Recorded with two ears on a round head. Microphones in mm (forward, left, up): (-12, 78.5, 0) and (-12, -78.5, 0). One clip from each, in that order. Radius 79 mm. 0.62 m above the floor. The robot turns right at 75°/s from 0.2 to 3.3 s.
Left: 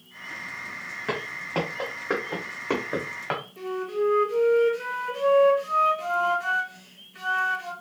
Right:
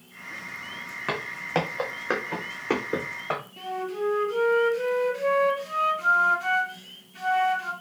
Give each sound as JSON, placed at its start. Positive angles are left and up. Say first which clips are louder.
{"t": 1.1, "sound": "footsteps", "louder": "right 2 dB", "side_deg": -30, "distance_m": 2.0}
{"t": 3.6, "sound": "a flute", "louder": "left 2 dB", "side_deg": 5, "distance_m": 1.3}